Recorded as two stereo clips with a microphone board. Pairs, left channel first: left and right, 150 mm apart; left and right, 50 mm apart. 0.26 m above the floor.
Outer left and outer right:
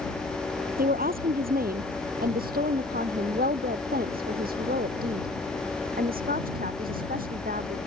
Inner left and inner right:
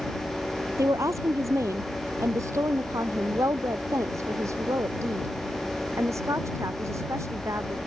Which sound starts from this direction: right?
A woman speaking, at 0.8 s.